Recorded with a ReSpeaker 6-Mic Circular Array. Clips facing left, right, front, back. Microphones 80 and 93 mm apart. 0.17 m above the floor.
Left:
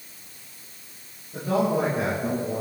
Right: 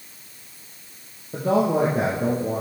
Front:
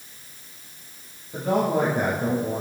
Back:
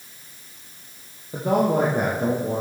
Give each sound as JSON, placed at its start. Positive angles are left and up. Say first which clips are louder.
{"t": 1.3, "sound": "a man speaking", "louder": "right 3 dB, back 2 dB", "azimuth_deg": -120, "distance_m": 4.5}